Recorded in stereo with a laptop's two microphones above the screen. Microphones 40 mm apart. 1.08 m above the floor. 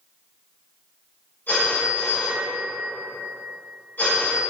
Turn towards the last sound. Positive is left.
turn(degrees=55)  # may be behind; listen again after turning